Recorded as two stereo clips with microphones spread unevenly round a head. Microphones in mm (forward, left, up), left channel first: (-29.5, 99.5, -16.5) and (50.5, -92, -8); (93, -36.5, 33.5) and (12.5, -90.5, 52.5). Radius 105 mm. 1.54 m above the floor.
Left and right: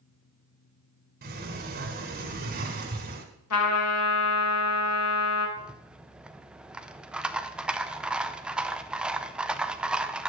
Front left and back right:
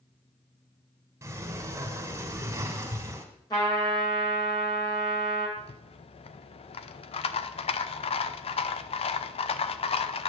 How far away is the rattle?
About 0.6 m.